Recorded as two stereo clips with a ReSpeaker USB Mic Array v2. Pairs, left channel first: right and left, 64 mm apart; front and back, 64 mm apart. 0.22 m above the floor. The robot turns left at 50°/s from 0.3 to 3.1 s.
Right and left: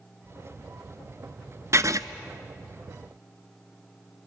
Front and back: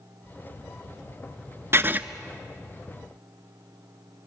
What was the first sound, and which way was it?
Writing, 130° left.